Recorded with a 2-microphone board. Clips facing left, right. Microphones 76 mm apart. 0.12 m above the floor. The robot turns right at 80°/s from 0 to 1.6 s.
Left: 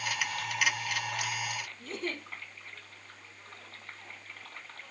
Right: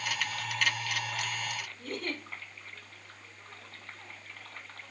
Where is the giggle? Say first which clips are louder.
Right 1 dB; 55° right (ahead or behind), 4 m.